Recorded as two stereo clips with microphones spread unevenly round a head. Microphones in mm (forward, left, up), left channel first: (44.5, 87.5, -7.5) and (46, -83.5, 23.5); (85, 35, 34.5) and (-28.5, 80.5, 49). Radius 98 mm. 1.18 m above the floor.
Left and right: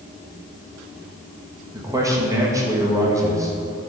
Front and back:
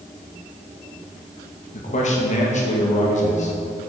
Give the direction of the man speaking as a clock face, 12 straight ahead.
1 o'clock.